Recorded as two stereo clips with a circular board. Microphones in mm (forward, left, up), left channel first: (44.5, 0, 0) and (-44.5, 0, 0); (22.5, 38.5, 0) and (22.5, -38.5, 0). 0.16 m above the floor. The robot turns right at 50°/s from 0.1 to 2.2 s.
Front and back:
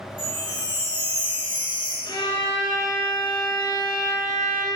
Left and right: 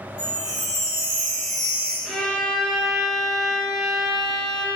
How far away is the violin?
About 1.4 m.